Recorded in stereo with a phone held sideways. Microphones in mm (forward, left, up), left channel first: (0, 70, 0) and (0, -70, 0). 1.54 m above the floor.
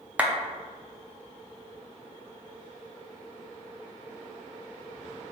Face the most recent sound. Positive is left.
turn(degrees=-10)  # may be behind; listen again after turning